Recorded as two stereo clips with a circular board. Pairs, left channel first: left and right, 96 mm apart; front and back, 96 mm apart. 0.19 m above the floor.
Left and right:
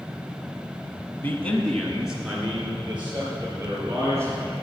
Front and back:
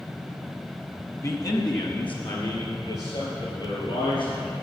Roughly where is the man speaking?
Ahead left.